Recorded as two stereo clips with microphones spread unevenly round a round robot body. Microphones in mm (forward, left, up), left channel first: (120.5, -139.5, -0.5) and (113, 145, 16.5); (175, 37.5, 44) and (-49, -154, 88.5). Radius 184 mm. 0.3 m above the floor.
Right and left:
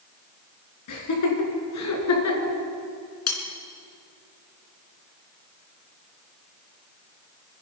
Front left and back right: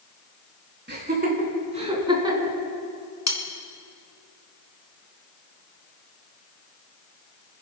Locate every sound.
0.9 s laughter: 80° right, 4 m; by 2.5 s 55° right, 4 m
3.3 s cutlery clinking: 60° right, 2.5 m